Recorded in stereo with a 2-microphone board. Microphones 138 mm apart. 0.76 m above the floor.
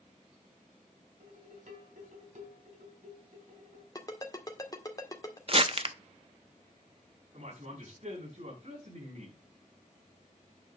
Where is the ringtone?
25° left (ahead or behind), 1.7 m.